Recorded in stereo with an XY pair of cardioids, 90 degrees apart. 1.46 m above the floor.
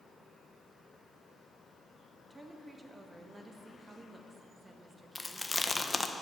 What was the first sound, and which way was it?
A woman speaking, 25° right.